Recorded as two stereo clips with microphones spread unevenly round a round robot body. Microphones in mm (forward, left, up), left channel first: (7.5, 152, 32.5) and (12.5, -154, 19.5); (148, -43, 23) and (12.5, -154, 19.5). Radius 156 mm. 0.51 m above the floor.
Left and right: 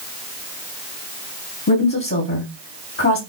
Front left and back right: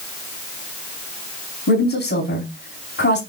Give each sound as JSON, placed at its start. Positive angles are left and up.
{"t": 1.7, "sound": "a woman speaking", "azimuth_deg": 45, "distance_m": 3.0}